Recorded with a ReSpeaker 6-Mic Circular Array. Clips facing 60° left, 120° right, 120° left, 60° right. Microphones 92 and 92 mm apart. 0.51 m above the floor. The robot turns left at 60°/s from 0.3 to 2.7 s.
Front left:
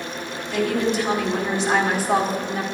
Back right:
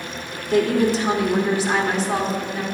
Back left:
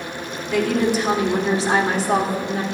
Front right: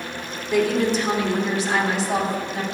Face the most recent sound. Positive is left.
turn(degrees=95)